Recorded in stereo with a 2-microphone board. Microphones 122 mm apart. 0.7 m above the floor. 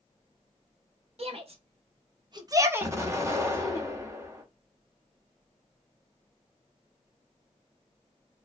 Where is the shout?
55° right (ahead or behind), 1.1 m; by 3.8 s 20° left (ahead or behind), 0.7 m.